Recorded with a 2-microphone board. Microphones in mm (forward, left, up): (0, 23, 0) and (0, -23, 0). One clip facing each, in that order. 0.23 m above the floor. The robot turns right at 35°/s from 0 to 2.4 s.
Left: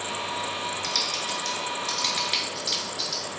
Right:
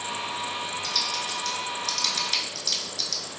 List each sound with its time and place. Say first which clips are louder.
0.8 s typing on a keyboard: left 1 dB; 70° left (ahead or behind), 0.7 m; by 3.2 s 15° left (ahead or behind), 0.7 m